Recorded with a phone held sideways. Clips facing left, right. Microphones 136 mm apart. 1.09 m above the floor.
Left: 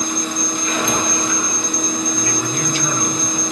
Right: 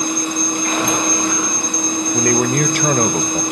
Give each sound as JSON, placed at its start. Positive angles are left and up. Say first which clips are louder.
{"t": 0.0, "sound": "a machine running", "louder": "right 3 dB", "side_deg": -60, "distance_m": 9.0}
{"t": 2.1, "sound": "a man speaking", "louder": "right 7 dB", "side_deg": -60, "distance_m": 0.9}